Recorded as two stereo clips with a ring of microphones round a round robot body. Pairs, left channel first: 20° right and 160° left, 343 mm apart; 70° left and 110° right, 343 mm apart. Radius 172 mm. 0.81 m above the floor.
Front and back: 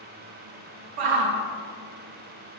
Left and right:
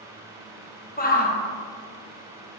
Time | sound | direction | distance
1.0 | a shout | 135° left | 1.0 m